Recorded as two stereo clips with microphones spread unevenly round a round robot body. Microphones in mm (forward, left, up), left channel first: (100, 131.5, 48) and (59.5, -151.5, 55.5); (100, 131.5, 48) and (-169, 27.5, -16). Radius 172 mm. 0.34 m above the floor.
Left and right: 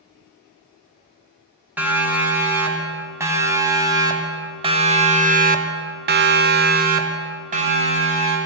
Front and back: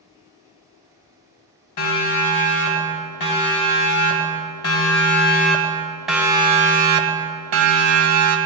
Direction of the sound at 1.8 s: 15° right.